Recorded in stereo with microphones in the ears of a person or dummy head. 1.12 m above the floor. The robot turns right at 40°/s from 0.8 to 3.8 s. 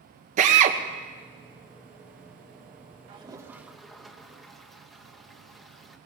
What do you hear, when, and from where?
0.4 s a drill: 40° right (ahead or behind), 1.2 m
3.1 s a toilet flushing: 30° right (ahead or behind), 1.1 m; by 6.0 s centre (ahead or behind), 1.1 m